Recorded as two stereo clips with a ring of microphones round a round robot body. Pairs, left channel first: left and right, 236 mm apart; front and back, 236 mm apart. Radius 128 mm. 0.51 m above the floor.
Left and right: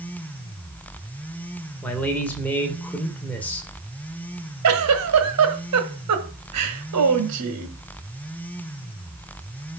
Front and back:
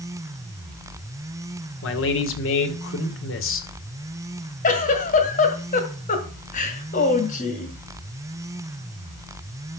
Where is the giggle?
60° right, 1.9 m.